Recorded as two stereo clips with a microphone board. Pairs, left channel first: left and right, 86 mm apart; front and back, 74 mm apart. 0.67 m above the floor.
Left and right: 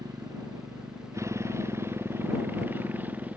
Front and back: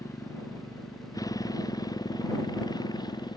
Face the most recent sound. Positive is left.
turn(degrees=-20)